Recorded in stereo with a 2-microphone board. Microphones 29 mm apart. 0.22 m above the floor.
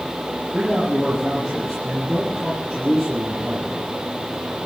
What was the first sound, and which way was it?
A man speaking, 5° left (ahead or behind).